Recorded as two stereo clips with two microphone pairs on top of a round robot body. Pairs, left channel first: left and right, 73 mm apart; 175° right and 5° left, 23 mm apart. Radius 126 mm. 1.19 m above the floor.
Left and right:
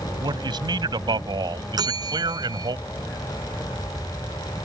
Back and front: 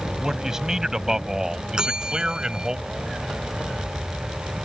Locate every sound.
0.2 s a man speaking: 70° right; by 2.8 s 60° right
1.8 s a bell: 60° right